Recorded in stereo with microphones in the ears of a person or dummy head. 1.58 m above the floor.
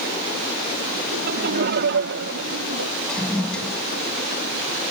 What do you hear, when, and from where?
1.1 s laughter: 55° right (ahead or behind); by 2.9 s 75° right (ahead or behind)
3.1 s a toilet flushing: 5° left (ahead or behind)